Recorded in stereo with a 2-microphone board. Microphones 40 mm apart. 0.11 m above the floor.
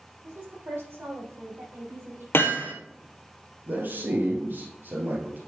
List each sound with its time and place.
0.2 s a woman speaking: 60° right (ahead or behind), 4.5 m; by 2.2 s 70° right (ahead or behind), 5 m
2.3 s hammering: 65° left (ahead or behind), 1.7 m
3.7 s a man speaking: 60° right (ahead or behind), 2 m